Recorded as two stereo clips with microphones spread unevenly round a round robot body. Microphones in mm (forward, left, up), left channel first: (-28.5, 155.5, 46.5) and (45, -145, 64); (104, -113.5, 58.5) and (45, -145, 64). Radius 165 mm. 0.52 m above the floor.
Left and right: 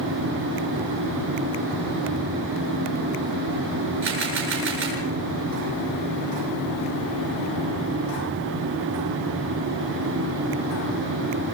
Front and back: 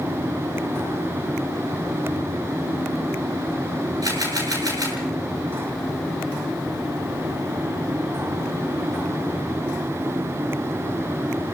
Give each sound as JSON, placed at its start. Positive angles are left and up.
{"t": 4.0, "sound": "a camera shutter", "azimuth_deg": -130, "distance_m": 10.0}